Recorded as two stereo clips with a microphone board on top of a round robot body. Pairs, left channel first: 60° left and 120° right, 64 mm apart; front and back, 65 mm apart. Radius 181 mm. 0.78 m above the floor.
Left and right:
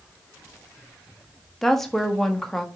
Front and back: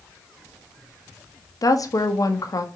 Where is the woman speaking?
25° right, 1.3 m.